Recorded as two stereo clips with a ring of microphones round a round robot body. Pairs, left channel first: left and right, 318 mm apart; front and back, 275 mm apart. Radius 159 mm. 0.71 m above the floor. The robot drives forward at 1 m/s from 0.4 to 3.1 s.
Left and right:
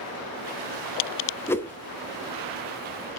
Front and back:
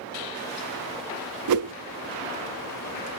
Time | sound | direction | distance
1.5 | a whoosh | 170° left | 0.8 m